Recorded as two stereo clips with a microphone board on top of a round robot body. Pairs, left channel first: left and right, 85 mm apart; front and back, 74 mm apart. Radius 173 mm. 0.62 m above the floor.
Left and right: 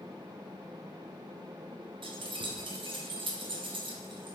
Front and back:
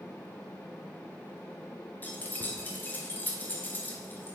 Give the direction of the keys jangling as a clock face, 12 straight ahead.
2 o'clock.